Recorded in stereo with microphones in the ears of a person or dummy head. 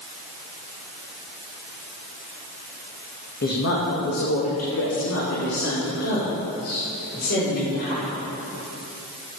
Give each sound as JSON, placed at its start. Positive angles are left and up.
{"t": 3.4, "sound": "a woman speaking", "side_deg": 50, "distance_m": 2.0}